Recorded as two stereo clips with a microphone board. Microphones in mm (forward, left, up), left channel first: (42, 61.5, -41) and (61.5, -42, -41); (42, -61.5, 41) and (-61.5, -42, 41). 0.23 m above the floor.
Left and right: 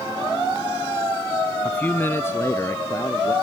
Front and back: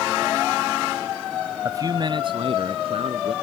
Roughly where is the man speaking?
Behind.